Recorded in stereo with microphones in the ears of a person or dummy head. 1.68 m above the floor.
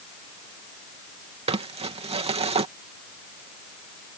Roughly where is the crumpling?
Right.